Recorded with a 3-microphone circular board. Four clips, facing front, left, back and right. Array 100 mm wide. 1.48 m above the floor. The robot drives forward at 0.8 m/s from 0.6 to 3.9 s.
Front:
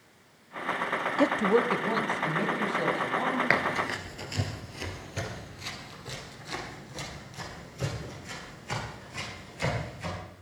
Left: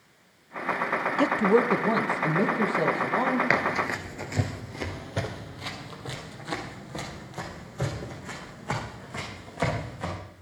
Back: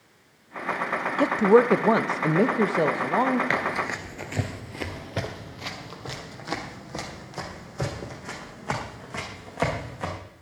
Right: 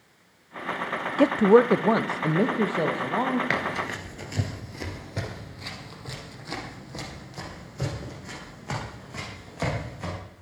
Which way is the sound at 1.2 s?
85° right.